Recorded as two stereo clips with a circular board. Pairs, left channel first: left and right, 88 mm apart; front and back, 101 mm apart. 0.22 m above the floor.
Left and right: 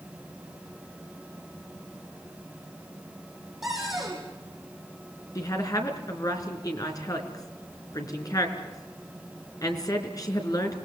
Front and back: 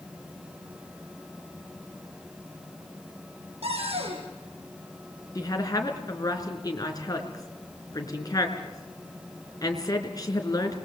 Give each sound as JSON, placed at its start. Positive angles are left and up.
{"t": 3.6, "sound": "a cupboard door", "azimuth_deg": -175, "distance_m": 6.0}
{"t": 5.3, "sound": "a woman speaking", "azimuth_deg": 50, "distance_m": 3.5}